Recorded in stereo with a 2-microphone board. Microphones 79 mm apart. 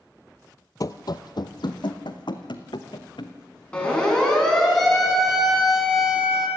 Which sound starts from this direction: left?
Running footsteps, at 0.8 s.